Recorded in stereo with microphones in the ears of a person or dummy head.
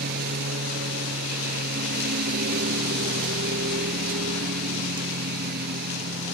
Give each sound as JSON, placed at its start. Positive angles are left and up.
{"t": 0.0, "sound": "a lawn mower", "side_deg": -50}